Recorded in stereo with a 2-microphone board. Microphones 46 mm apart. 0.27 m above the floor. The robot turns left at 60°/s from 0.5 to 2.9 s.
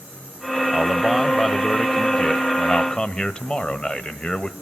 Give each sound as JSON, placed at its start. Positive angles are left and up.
{"t": 0.7, "sound": "a man speaking", "side_deg": -15, "distance_m": 1.0}